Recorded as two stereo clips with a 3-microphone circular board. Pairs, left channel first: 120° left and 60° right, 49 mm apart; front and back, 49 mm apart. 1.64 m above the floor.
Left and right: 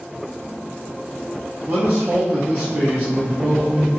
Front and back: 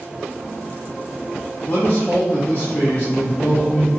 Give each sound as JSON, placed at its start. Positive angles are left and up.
{"t": 1.7, "sound": "a man speaking", "azimuth_deg": -40, "distance_m": 0.6}